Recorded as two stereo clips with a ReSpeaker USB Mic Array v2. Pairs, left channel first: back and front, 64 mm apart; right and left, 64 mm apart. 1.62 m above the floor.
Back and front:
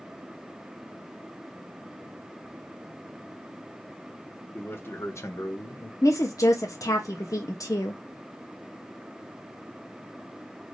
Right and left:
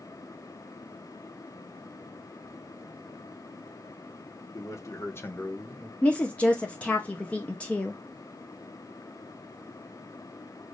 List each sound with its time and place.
4.5 s a man speaking: 120° right, 1.5 m; by 5.9 s 175° left, 0.8 m
6.0 s a woman speaking: 160° right, 0.9 m